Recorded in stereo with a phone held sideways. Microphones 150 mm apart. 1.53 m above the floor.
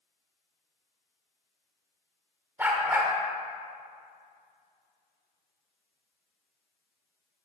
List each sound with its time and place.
2.6 s a dog barking: 15° right (ahead or behind), 1.6 m